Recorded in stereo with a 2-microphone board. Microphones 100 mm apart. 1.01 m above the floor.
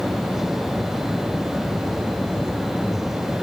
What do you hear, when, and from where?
Only background noise.